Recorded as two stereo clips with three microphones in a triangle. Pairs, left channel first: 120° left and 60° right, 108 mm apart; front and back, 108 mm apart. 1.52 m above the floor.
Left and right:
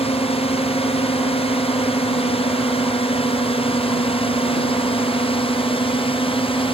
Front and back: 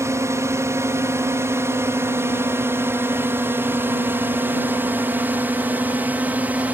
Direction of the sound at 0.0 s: 120° left.